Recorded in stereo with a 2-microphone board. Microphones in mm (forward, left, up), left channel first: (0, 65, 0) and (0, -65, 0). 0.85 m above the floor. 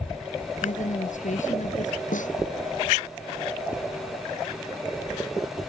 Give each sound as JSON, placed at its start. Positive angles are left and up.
{"t": 0.6, "sound": "a woman speaking", "side_deg": 75}
{"t": 2.1, "sound": "a snare drum", "side_deg": 80}